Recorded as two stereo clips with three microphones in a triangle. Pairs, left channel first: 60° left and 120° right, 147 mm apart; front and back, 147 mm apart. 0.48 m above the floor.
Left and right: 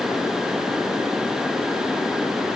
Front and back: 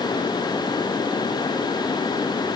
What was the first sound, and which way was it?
Only background noise.